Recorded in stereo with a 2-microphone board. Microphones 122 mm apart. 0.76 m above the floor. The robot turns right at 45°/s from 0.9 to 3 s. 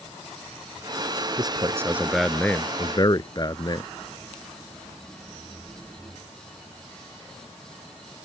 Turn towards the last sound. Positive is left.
turn(degrees=35)